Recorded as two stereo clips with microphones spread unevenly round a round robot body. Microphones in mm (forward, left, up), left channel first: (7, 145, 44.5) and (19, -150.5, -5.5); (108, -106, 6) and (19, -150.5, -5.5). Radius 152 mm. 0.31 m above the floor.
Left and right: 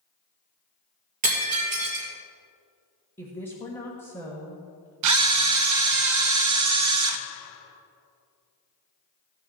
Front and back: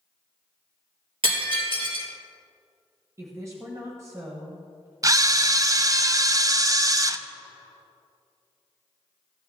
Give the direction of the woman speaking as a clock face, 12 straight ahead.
6 o'clock.